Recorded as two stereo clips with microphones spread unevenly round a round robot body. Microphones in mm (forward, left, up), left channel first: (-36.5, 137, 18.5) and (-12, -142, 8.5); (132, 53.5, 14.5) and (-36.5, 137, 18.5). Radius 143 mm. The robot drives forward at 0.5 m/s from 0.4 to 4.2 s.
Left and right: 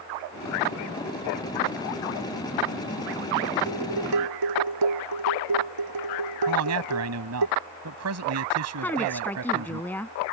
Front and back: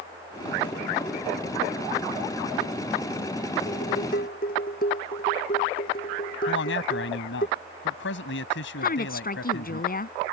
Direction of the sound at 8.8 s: 10° left.